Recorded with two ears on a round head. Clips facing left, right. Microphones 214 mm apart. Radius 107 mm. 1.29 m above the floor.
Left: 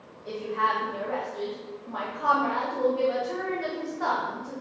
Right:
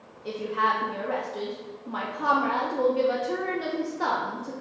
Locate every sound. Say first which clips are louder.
0.2 s a woman speaking: right 1 dB; 45° right (ahead or behind), 0.5 m